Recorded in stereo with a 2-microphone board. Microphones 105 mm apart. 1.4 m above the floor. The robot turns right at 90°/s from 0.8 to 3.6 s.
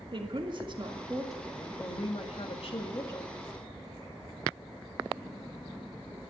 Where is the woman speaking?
50° right, 2.0 m; by 3.3 s straight behind, 2.0 m.